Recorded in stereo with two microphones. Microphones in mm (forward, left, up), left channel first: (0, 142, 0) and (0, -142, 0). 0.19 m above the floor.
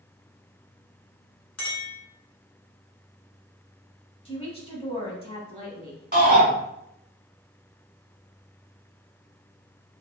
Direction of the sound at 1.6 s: 65° left (ahead or behind).